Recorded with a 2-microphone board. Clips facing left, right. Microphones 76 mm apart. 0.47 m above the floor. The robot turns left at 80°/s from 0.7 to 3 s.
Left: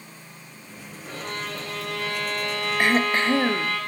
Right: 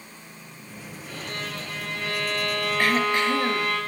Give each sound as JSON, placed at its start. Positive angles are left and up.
{"t": 1.0, "sound": "a violin", "azimuth_deg": 150, "distance_m": 7.0}
{"t": 2.8, "sound": "throat clearing", "side_deg": 20, "distance_m": 1.1}